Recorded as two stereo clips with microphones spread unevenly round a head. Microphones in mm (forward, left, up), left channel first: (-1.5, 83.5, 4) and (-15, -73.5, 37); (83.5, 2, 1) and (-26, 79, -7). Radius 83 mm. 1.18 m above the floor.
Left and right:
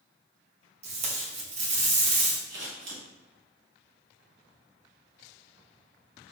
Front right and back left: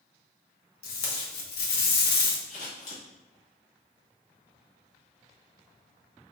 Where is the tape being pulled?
40° right, 1.0 m.